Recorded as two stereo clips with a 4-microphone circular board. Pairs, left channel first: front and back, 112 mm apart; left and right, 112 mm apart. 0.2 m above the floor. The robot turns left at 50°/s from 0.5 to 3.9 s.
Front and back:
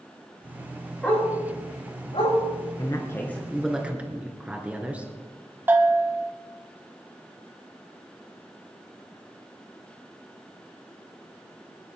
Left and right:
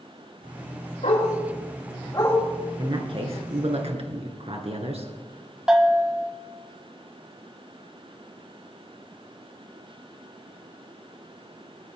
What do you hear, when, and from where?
1.0 s a dog barking: 85° left, 7.5 m; by 2.4 s 20° left, 7.5 m
2.8 s a man speaking: 45° right, 2.5 m; by 5.1 s 105° right, 2.5 m
5.7 s a bell: 160° right, 1.7 m